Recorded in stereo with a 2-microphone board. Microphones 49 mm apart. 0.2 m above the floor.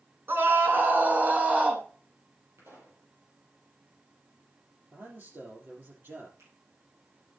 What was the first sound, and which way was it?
A scream, 50° right (ahead or behind).